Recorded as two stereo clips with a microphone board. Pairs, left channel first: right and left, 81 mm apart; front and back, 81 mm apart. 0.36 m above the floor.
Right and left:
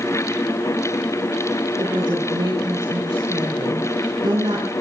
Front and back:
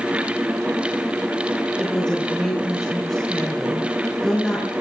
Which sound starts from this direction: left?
A woman speaking, at 1.8 s.